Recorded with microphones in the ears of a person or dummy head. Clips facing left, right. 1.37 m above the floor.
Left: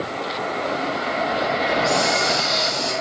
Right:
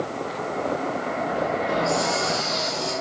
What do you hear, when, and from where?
1.7 s a hiss: 45° left (ahead or behind), 1.3 m